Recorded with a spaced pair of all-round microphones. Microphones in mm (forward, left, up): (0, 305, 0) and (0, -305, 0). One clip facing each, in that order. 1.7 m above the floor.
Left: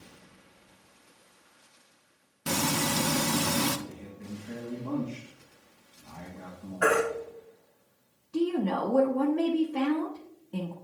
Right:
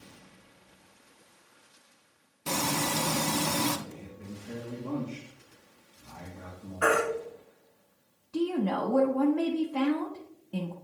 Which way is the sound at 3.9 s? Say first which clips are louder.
Left 2 dB; 15° left (ahead or behind).